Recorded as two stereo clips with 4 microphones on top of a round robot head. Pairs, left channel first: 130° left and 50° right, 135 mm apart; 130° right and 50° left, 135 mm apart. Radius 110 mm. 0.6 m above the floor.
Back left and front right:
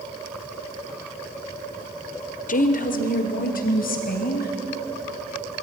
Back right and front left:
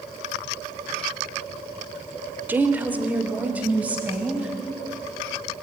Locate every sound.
2.5 s a woman speaking: 125° left, 1.5 m; by 4.5 s 130° left, 4.5 m